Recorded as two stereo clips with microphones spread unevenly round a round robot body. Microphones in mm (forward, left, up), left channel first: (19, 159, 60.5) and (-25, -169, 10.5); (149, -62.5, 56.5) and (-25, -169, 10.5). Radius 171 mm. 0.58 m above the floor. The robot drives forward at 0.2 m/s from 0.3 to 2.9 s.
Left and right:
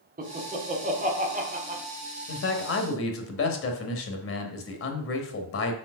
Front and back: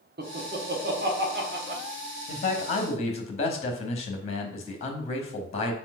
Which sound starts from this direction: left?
A man speaking, at 2.3 s.